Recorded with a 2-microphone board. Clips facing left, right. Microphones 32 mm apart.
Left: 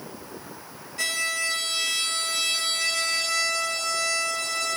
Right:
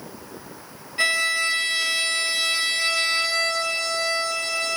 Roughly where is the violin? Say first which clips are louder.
Right 6 dB; right.